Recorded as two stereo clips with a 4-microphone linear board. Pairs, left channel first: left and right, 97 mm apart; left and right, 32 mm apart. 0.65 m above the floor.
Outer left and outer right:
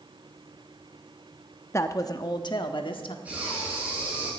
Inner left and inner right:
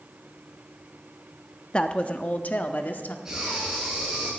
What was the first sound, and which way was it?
A woman speaking, 30° left (ahead or behind).